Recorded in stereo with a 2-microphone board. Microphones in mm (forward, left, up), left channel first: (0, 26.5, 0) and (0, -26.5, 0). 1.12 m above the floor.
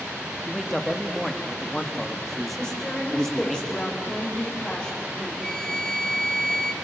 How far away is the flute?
About 2.0 m.